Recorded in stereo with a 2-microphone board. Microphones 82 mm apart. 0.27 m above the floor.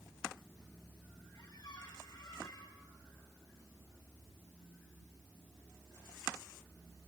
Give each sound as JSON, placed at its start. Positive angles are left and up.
{"t": 1.3, "sound": "a squeak", "side_deg": 55, "distance_m": 5.5}